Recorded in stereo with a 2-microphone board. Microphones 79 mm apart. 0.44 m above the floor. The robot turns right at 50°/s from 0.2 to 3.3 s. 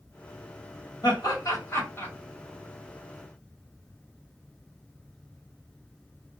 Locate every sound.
1.0 s laughter: 65° left (ahead or behind), 2 m; by 2.1 s 25° left (ahead or behind), 2 m